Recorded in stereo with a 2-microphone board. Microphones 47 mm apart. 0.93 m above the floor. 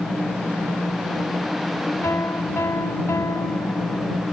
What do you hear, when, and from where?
2.0 s a piano: 85° left